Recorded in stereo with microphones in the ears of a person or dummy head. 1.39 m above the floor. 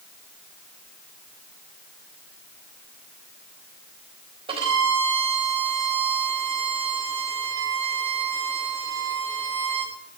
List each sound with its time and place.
4.5 s a violin: 30° right (ahead or behind), 4 m